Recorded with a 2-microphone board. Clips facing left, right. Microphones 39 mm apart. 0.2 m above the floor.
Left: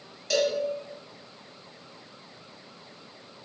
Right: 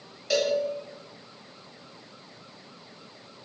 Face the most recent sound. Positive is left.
turn(degrees=-10)  # may be behind; listen again after turning